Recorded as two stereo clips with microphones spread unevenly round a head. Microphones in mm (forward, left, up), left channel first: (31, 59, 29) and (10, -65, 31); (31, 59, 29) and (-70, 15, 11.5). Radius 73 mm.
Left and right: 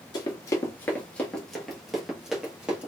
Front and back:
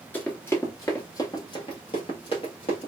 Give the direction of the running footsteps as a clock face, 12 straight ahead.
10 o'clock.